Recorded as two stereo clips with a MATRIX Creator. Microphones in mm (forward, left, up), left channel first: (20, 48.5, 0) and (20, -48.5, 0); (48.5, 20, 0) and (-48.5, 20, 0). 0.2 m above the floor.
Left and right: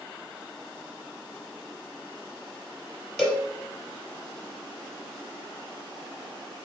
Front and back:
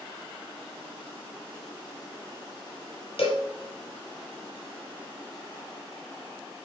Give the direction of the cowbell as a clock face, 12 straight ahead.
12 o'clock.